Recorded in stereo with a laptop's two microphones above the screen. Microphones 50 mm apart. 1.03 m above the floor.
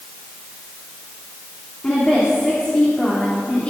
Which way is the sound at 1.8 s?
20° left (ahead or behind).